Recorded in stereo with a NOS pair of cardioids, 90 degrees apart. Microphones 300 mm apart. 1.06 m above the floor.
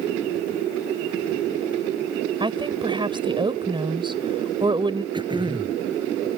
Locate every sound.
2.4 s a woman speaking: 15° right
5.1 s throat clearing: 15° right